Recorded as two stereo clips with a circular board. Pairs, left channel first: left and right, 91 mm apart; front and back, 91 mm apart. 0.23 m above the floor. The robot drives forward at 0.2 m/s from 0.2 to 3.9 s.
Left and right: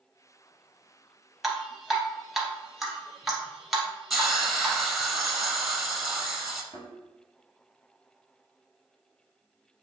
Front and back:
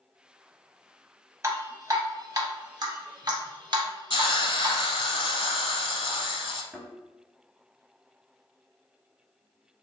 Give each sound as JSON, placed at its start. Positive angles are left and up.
{"t": 1.4, "sound": "dripping", "azimuth_deg": -175, "distance_m": 0.7}
{"t": 4.1, "sound": "a hiss", "azimuth_deg": 0, "distance_m": 0.6}
{"t": 6.7, "sound": "a thud", "azimuth_deg": 95, "distance_m": 1.5}